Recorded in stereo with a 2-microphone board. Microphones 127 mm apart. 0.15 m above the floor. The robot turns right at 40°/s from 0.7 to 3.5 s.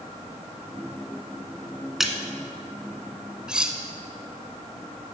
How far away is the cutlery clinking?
About 0.8 m.